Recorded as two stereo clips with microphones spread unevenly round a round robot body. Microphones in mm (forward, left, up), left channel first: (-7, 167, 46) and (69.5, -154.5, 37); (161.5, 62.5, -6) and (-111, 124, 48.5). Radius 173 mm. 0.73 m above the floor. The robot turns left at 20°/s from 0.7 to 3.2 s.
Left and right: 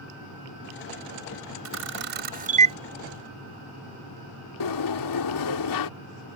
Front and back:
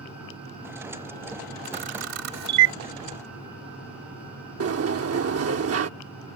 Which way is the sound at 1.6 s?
130° right.